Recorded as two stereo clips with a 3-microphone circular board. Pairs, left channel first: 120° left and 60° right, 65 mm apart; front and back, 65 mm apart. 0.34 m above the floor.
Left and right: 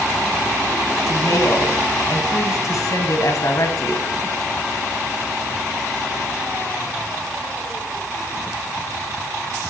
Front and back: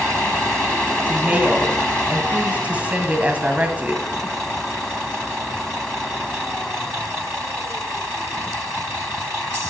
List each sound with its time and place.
1.1 s a woman speaking: 115° left, 1.9 m